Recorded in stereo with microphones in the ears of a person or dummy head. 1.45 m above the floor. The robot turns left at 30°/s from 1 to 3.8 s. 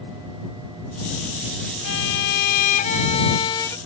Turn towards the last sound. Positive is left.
turn(degrees=15)